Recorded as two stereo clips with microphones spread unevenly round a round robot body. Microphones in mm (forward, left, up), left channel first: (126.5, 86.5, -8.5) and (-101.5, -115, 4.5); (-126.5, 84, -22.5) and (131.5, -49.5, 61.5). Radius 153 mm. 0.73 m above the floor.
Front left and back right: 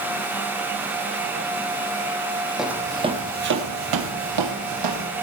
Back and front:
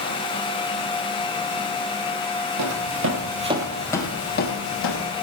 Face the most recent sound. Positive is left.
turn(degrees=-160)